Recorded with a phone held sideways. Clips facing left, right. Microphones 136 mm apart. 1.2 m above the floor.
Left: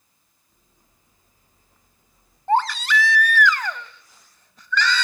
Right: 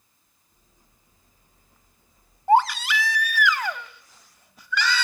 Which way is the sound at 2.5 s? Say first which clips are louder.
Right 2 dB; 10° right (ahead or behind).